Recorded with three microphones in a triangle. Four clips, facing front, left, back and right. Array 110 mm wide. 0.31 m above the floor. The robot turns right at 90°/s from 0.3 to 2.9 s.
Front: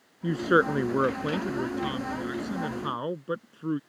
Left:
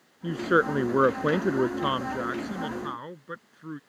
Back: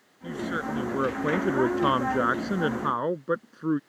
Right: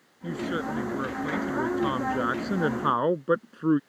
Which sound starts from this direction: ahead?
A woman speaking, at 0.2 s.